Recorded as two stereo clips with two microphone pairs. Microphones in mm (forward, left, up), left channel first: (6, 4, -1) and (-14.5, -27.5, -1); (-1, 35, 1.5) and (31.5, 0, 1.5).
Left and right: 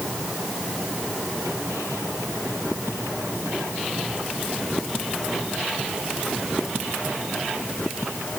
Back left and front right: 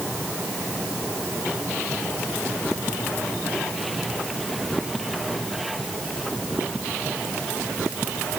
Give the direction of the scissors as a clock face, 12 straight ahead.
I don't hear scissors.